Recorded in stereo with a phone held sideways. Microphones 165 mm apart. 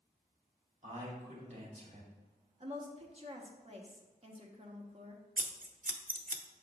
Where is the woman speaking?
40° right (ahead or behind), 1.0 m.